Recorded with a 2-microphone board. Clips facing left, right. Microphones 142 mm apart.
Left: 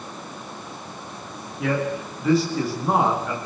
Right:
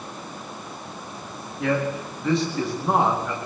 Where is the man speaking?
Centre (ahead or behind), 8.5 m.